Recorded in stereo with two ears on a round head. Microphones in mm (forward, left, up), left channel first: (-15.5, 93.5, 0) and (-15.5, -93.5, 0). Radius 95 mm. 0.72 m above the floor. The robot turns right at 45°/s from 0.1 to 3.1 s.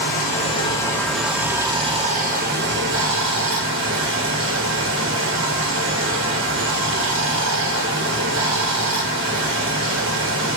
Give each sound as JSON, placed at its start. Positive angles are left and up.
{"t": 0.0, "sound": "running water", "azimuth_deg": 130, "distance_m": 0.9}